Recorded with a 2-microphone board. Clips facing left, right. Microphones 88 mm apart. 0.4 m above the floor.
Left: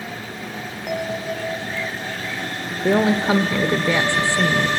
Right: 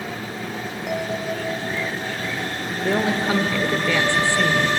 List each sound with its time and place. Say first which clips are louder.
0.9 s a bell: left 1 dB; 5° left (ahead or behind), 1.9 m
2.8 s a woman speaking: left 4 dB; 20° left (ahead or behind), 0.9 m